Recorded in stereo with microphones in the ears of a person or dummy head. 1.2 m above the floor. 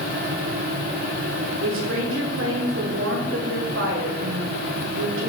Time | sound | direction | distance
1.6 | a woman speaking | 70° right (ahead or behind) | 2.0 m